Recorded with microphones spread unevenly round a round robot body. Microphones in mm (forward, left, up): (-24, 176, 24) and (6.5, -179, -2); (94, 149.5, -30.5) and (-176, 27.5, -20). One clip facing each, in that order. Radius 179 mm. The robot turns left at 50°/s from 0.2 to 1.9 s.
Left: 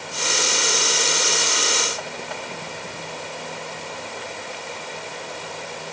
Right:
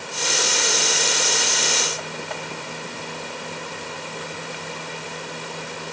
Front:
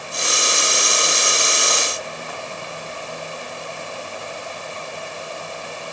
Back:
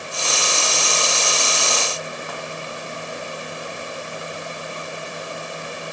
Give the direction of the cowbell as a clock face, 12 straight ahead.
No cowbell in this recording.